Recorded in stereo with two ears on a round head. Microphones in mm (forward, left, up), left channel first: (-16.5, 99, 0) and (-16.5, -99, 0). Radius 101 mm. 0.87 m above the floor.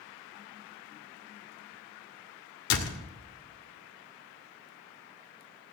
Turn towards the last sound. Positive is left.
turn(degrees=70)  # may be behind; listen again after turning